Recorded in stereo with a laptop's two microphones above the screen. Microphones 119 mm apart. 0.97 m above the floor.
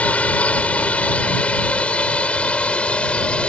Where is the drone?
10° left (ahead or behind).